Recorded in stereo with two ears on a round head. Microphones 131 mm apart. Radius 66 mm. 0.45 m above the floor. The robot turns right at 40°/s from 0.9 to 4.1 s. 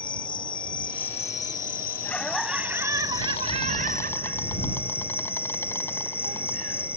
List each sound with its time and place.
0.0 s an insect: 35° left; by 7.0 s 165° left
2.0 s laughter: 165° left; by 6.9 s 110° right